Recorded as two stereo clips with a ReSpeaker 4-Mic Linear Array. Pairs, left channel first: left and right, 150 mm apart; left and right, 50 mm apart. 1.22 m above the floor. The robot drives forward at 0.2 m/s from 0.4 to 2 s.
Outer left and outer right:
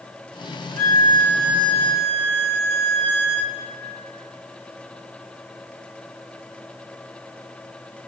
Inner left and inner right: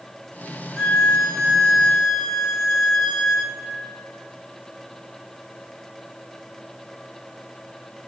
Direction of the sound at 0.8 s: 10° left (ahead or behind).